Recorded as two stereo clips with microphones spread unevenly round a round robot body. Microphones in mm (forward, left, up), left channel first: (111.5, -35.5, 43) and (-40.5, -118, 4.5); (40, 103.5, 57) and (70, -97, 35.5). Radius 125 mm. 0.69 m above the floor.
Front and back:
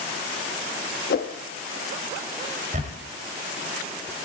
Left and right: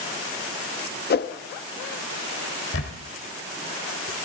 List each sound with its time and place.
1.1 s a whoosh: 65° left, 0.7 m
2.7 s a camera shutter: 145° left, 1.1 m